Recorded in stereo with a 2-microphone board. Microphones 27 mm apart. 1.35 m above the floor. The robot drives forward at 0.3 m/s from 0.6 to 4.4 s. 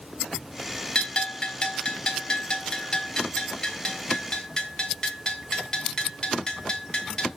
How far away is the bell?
About 1.2 m.